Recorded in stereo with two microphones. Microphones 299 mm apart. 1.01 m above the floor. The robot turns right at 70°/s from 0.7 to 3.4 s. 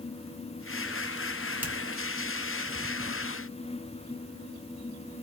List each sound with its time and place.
1.6 s a finger snap: 5° right (ahead or behind), 1.5 m; by 1.7 s 15° right (ahead or behind), 1.5 m